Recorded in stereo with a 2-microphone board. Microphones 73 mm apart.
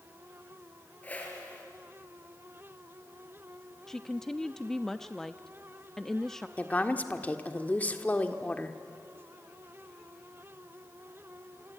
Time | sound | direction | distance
1.0 | a whoosh | 25° left (ahead or behind) | 4 m
3.9 | a woman speaking | 5° left (ahead or behind) | 0.5 m
6.6 | a woman speaking | 20° left (ahead or behind) | 1.6 m